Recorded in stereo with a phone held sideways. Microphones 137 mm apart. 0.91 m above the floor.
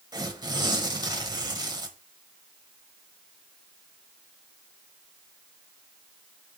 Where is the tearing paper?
30° right (ahead or behind), 1.1 m.